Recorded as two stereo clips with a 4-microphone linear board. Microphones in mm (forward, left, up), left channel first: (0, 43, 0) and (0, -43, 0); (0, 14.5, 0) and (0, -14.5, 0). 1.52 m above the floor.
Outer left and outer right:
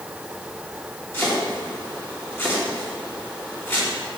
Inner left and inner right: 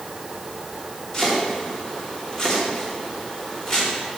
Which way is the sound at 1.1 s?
25° left (ahead or behind).